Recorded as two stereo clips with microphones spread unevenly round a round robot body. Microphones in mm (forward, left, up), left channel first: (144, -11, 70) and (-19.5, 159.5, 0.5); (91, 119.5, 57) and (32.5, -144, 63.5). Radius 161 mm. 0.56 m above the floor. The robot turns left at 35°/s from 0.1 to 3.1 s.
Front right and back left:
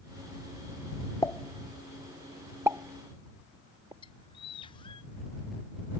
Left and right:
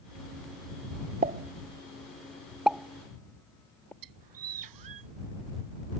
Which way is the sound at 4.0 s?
120° right.